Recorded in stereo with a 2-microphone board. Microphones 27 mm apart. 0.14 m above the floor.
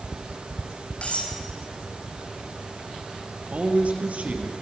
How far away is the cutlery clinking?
About 5 m.